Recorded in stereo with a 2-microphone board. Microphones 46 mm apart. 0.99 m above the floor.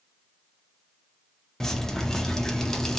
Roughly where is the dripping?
Centre.